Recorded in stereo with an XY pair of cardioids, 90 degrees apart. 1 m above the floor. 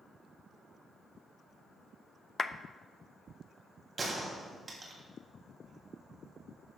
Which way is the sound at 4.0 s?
45° right.